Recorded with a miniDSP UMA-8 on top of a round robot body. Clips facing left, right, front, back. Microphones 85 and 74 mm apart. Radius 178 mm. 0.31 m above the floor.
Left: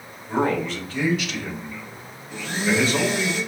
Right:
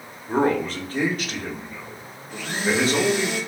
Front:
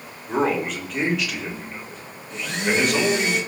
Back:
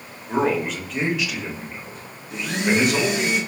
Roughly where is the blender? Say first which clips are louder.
Left 1 dB, back 2 dB; right.